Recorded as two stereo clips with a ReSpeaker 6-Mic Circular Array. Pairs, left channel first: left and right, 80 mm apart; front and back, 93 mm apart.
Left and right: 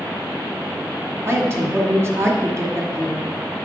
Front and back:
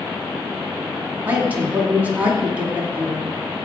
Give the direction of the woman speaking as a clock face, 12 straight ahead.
4 o'clock.